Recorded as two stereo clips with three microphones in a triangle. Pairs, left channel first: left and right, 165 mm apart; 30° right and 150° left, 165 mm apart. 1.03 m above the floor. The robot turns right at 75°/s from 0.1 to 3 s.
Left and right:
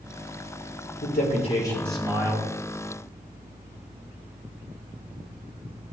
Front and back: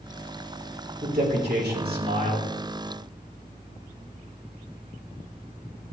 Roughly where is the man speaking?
Left.